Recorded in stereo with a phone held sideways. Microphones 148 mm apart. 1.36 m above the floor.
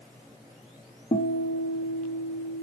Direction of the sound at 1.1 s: 50° left (ahead or behind).